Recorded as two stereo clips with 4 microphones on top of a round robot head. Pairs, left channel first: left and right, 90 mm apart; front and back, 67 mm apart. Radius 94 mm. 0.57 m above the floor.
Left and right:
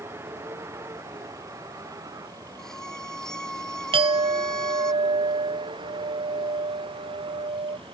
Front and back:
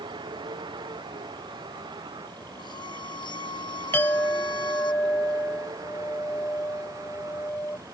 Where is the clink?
65° right.